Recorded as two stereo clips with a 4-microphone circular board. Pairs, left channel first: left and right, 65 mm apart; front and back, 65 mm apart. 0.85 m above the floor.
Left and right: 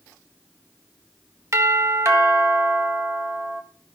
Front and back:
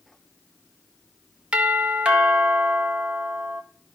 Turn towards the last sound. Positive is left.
turn(degrees=-115)